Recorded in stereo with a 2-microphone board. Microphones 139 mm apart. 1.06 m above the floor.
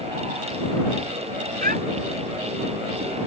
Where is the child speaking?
85° right.